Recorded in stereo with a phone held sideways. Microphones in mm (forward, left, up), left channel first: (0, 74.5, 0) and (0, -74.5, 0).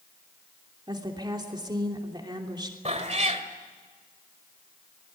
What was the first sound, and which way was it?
A woman speaking, 30° right (ahead or behind).